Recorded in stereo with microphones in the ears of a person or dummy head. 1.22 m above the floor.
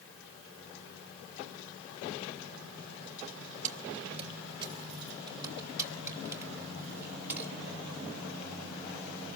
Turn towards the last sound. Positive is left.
turn(degrees=-10)  # may be behind; listen again after turning